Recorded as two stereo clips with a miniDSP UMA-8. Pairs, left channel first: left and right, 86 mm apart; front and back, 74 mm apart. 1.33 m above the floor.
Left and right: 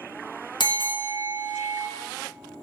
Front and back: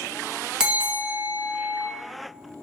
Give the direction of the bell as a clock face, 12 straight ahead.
9 o'clock.